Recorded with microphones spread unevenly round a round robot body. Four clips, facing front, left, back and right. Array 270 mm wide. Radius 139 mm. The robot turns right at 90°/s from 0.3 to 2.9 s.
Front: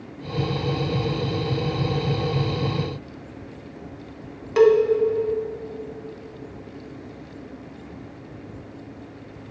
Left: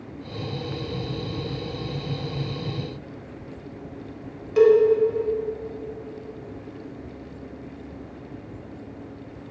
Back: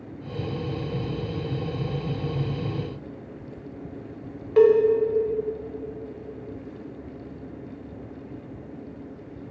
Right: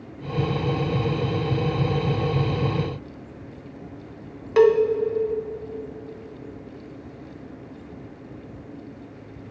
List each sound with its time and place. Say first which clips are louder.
4.6 s a cowbell: left 1 dB, front 1 dB; 55° right, 1.0 m